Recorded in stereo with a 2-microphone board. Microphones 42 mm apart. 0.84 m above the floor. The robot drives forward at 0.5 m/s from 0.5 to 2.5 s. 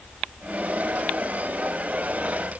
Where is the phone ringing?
I don't hear a phone ringing.